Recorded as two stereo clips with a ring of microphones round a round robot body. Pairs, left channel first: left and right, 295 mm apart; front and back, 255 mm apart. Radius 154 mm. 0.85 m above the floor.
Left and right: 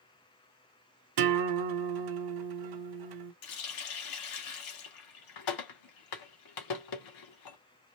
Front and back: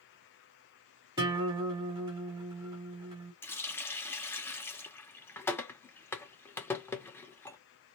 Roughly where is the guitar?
Right.